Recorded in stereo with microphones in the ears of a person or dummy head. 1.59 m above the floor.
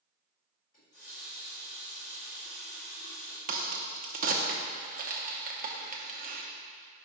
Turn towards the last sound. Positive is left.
turn(degrees=-45)  # may be behind; listen again after turning